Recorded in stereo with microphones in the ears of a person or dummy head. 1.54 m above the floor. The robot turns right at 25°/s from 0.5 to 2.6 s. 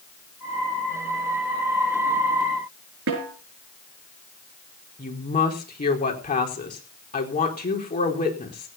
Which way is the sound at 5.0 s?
35° left (ahead or behind).